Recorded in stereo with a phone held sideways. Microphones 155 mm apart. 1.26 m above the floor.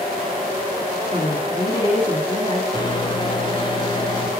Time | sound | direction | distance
1.1 | a woman speaking | 40° left (ahead or behind) | 2.5 m
2.7 | a microwave | 30° left (ahead or behind) | 0.8 m